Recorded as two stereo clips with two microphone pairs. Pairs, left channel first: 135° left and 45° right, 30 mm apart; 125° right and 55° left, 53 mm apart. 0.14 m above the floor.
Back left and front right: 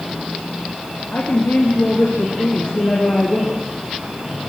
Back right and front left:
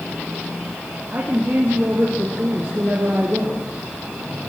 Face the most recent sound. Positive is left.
turn(degrees=105)